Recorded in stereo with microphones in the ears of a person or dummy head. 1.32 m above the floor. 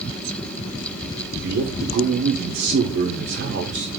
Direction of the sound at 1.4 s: 60° right (ahead or behind).